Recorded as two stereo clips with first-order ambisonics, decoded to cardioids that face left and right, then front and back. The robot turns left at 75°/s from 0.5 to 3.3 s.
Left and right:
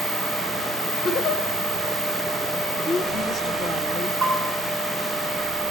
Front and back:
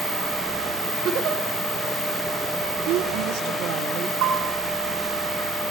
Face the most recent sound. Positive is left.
turn(degrees=-155)